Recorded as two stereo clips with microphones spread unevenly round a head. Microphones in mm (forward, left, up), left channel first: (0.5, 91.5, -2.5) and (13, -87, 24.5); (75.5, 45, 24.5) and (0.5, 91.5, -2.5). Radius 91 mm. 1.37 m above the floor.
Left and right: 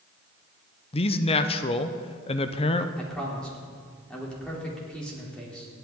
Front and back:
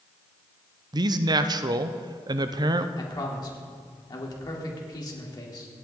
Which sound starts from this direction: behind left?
A man speaking, at 0.9 s.